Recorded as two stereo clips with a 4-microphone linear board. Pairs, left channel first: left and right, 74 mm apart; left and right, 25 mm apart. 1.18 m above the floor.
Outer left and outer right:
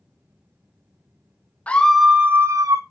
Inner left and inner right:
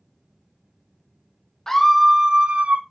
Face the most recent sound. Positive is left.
turn(degrees=-55)  # may be behind; listen again after turning